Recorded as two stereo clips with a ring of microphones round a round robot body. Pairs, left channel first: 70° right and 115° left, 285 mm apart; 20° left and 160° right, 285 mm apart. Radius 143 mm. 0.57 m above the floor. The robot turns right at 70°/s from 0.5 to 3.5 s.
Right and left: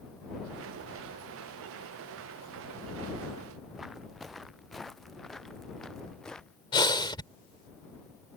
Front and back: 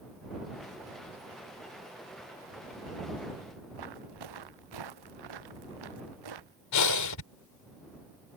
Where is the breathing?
5° left.